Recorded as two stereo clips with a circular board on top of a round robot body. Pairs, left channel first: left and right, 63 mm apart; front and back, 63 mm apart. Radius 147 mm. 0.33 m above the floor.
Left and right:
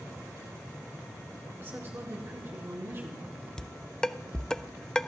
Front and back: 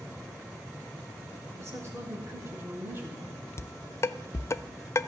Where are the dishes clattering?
15° left, 0.6 m.